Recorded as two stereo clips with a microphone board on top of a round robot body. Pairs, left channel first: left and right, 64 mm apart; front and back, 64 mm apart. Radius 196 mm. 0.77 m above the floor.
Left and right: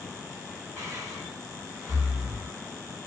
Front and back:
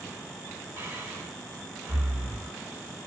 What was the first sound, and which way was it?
Breathing, 135° right.